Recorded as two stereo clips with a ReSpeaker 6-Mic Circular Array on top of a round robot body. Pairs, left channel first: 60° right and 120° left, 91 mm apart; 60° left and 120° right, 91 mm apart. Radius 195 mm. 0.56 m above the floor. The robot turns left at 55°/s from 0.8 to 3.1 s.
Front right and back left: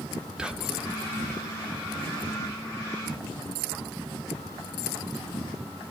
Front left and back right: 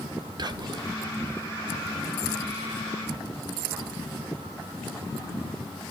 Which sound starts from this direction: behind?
Whispering, at 0.4 s.